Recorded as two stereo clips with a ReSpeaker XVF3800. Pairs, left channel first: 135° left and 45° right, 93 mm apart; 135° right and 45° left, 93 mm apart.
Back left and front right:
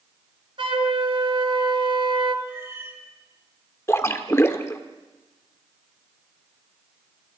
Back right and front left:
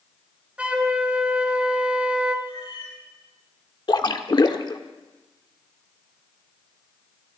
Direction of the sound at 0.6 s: 30° right.